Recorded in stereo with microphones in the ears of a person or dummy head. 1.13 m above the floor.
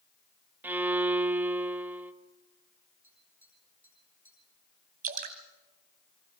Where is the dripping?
40° right (ahead or behind), 2.5 m.